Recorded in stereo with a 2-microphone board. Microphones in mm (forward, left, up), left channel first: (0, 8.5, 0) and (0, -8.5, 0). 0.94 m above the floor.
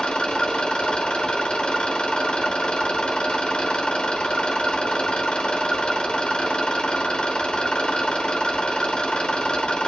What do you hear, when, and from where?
0.0 s an engine running: 60° left (ahead or behind), 1.2 m